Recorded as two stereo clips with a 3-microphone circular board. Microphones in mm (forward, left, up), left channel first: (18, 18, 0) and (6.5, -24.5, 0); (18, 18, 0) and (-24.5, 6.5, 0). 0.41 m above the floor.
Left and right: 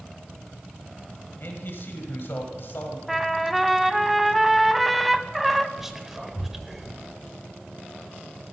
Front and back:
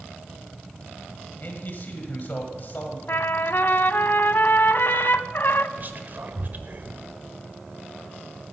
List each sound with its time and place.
1.4 s a man speaking: 50° left, 1.7 m
3.1 s a trumpet: 15° right, 0.5 m
5.8 s whispering: 175° left, 1.2 m